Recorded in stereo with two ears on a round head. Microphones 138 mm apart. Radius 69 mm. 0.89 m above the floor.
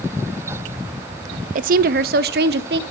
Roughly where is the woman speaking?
Right.